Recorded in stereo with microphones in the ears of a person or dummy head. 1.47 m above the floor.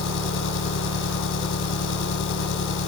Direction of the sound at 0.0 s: 65° left (ahead or behind).